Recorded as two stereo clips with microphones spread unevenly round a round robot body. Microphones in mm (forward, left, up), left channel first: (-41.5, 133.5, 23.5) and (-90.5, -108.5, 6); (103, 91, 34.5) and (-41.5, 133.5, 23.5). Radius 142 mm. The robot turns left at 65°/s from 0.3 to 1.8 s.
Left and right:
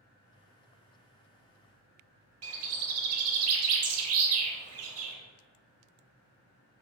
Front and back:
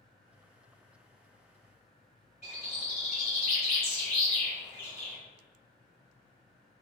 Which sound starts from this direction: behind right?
A bird, at 2.4 s.